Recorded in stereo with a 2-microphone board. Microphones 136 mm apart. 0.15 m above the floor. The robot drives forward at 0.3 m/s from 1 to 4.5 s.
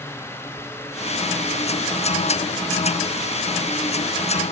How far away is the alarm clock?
No alarm clock in this recording.